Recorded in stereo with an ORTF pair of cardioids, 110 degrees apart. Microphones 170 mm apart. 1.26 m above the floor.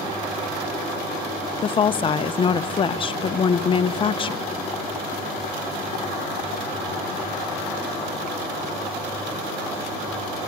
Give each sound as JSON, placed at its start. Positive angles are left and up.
{"t": 1.6, "sound": "a woman speaking", "azimuth_deg": 30, "distance_m": 0.7}